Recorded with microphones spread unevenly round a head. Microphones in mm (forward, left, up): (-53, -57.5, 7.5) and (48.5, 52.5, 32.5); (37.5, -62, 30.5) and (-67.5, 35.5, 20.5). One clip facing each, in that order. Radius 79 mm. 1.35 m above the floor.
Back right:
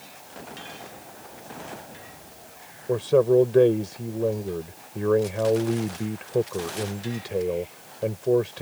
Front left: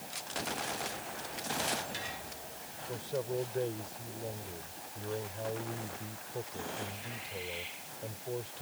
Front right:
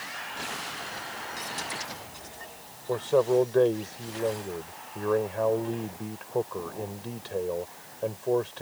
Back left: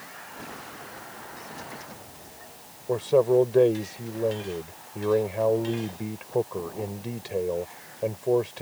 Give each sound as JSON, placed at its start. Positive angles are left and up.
{"t": 2.9, "sound": "a man speaking", "azimuth_deg": -145}